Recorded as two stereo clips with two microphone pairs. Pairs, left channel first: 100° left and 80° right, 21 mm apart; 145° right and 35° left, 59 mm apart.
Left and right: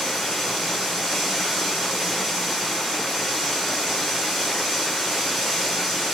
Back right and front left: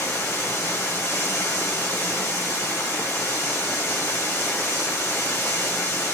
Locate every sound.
0.0 s running water: 175° right, 2 m